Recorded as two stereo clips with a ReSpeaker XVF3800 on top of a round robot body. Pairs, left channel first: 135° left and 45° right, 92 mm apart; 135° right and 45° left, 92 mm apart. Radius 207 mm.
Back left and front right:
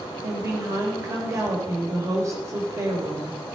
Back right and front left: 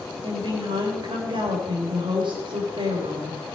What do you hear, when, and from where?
0.2 s a woman speaking: 10° left, 3.5 m